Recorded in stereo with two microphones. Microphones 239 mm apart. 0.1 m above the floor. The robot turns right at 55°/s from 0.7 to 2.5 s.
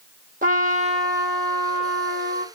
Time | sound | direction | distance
0.4 | a trumpet | 35° right | 1.1 m